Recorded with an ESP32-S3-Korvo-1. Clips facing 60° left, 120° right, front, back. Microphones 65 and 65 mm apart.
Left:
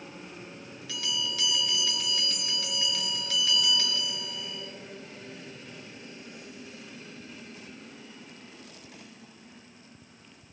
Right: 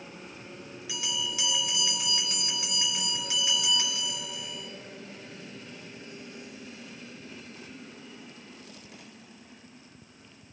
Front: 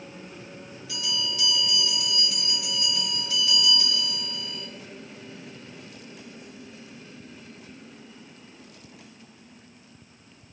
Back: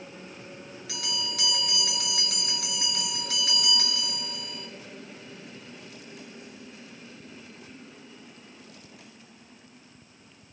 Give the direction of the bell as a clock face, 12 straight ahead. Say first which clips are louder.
Left 1 dB, front 3 dB; 7 o'clock.